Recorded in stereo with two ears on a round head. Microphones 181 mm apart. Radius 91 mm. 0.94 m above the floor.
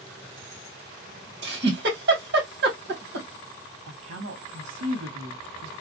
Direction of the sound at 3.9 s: 75° right (ahead or behind).